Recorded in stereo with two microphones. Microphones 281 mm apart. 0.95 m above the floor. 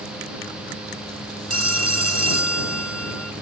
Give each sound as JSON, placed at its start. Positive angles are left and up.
{"t": 1.5, "sound": "a phone ringing", "side_deg": -60}